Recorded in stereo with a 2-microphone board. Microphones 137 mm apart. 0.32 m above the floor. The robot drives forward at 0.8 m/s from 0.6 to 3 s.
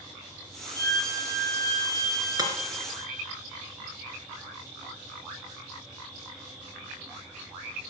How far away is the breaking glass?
About 2 m.